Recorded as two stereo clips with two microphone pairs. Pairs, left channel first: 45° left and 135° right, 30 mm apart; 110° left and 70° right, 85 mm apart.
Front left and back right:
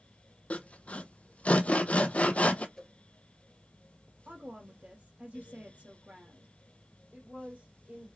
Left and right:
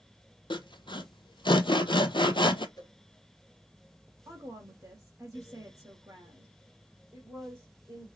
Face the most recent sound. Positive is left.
turn(degrees=-125)